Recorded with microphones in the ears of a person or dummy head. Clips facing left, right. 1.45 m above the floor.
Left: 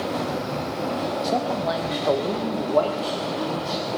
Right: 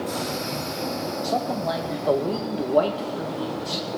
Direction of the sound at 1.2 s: 15° left (ahead or behind).